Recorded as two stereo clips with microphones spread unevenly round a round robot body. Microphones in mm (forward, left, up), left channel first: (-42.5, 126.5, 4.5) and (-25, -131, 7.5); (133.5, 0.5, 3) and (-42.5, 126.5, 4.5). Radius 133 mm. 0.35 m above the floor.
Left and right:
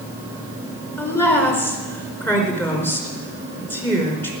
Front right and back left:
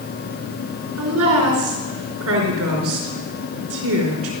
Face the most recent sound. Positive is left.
turn(degrees=175)